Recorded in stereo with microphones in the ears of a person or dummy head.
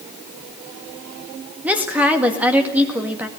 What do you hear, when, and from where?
1.6 s a woman speaking: 10° right (ahead or behind), 1.9 m